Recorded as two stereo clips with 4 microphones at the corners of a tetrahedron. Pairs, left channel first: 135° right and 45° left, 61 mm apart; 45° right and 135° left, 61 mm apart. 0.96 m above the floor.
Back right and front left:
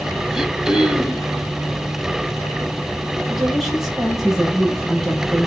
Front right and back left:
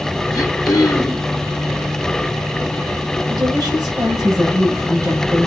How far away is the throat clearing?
About 3 m.